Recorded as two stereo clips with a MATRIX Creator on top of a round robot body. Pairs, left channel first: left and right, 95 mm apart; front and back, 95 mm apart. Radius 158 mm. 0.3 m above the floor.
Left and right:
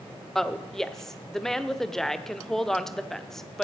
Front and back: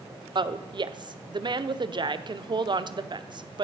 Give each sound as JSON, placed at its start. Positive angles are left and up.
{"t": 0.3, "sound": "a woman speaking", "azimuth_deg": 175, "distance_m": 1.3}